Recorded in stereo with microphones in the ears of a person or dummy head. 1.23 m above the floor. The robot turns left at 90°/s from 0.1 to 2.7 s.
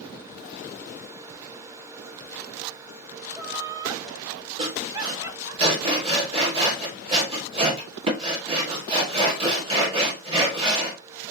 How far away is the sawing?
About 3.5 m.